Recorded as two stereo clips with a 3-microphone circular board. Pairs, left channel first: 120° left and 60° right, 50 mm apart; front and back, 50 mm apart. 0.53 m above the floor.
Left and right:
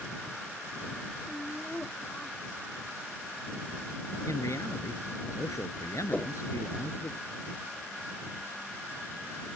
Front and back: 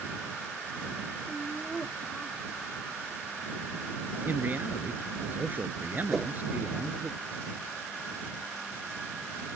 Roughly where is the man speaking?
Behind left.